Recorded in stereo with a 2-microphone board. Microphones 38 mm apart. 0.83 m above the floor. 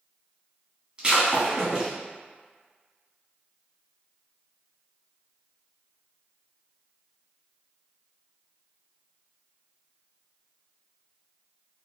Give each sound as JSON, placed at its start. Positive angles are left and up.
{"t": 1.0, "sound": "breaking glass", "side_deg": -25, "distance_m": 1.2}